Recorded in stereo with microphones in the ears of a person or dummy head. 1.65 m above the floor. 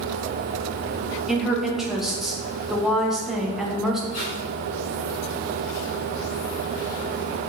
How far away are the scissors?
I don't hear scissors.